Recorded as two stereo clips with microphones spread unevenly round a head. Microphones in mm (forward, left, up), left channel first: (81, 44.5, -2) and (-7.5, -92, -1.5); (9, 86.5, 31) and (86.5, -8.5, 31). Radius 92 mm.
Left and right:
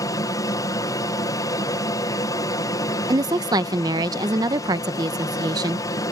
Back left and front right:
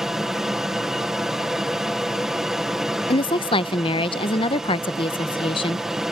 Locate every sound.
0.0 s an aircraft: 30° left
3.1 s a woman speaking: 170° left